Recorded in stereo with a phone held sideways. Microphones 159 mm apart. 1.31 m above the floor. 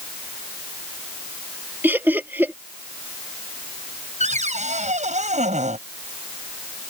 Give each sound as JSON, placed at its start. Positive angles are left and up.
{"t": 1.8, "sound": "laughter", "side_deg": -10}
{"t": 4.2, "sound": "a cupboard door", "side_deg": -50}